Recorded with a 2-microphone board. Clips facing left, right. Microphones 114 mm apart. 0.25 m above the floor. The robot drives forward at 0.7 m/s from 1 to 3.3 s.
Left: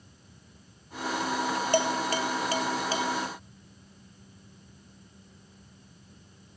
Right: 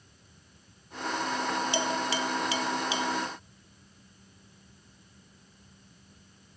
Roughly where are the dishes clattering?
Left.